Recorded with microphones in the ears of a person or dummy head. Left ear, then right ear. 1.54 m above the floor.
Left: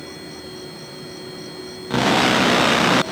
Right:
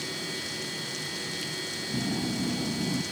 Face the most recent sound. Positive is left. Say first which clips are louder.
# right 2 dB
turn(degrees=-40)  # may be behind; listen again after turning